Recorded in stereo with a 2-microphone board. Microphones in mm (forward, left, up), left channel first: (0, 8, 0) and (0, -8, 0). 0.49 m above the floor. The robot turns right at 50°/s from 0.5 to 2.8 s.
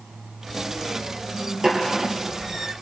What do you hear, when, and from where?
1.6 s a snare drum: 40° right (ahead or behind), 5.5 m; by 1.8 s 50° right (ahead or behind), 5.5 m